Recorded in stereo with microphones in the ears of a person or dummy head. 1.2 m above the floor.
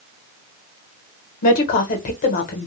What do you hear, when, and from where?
1.4 s a woman speaking: 45° left (ahead or behind), 0.8 m